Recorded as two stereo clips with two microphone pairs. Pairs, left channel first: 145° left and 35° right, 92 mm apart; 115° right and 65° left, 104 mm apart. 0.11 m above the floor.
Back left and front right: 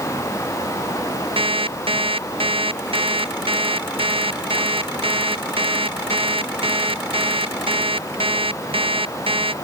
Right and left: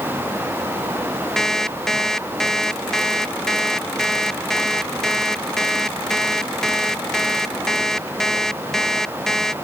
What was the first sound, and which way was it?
An alarm clock, 25° right.